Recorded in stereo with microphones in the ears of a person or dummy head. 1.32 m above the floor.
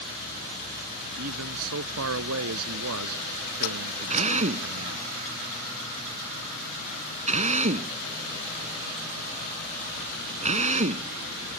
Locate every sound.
1.2 s a man speaking: 85° right
4.1 s a drill: 35° right (ahead or behind)